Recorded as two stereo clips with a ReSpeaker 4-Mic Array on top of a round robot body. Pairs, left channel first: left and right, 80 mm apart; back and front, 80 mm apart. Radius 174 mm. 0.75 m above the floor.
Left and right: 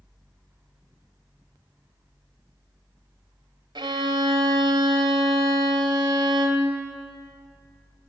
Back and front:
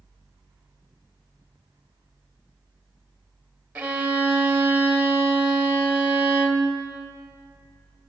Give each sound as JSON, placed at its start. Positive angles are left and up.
{"t": 3.8, "sound": "a violin", "azimuth_deg": -75, "distance_m": 1.0}